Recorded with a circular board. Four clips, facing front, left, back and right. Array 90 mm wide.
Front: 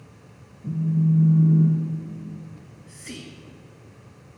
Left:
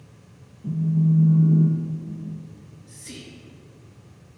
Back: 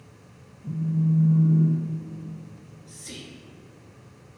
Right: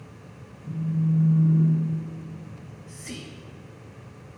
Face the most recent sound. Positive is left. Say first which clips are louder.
# right 4 dB, front 1 dB
turn(degrees=-25)